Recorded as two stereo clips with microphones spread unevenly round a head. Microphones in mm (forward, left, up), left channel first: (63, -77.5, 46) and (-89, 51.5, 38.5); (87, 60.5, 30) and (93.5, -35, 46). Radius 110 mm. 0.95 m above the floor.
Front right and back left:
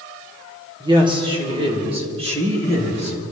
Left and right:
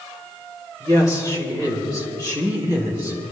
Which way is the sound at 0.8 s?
150° right.